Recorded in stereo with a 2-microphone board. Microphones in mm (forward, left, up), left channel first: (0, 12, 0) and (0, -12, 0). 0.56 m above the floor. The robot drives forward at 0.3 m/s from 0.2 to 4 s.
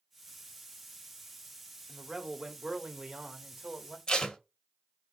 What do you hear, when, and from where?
1.9 s a man speaking: 20° right (ahead or behind), 1.3 m
4.1 s tape being pulled: 35° left (ahead or behind), 0.9 m